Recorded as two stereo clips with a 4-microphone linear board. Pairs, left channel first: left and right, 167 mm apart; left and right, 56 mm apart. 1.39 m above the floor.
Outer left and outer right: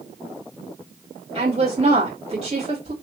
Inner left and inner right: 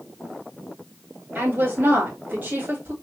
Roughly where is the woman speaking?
Right.